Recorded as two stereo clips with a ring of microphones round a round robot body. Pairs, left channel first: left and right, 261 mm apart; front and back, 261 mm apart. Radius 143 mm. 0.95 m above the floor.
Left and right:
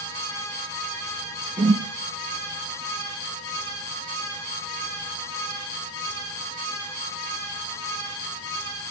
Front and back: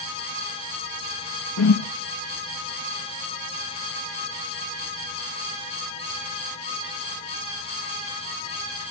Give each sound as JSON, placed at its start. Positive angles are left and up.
{"t": 1.6, "sound": "a whoosh", "azimuth_deg": -15, "distance_m": 1.0}